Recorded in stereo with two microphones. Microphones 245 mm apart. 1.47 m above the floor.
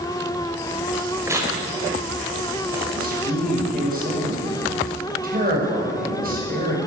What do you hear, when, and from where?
1.3 s tearing paper: 10° right (ahead or behind), 5 m
3.0 s a man speaking: 35° right (ahead or behind), 7 m